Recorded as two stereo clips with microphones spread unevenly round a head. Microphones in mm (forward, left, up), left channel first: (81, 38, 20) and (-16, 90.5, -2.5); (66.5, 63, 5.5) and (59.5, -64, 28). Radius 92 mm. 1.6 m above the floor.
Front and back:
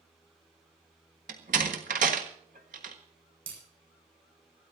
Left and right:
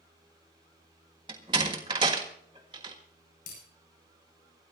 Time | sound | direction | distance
1.3 | a door slam | 155° right | 1.4 m
3.5 | breaking glass | 115° left | 9.5 m